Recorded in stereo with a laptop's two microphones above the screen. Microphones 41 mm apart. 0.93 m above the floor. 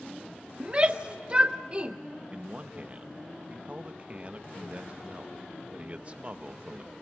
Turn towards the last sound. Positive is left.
turn(degrees=-30)  # may be behind; listen again after turning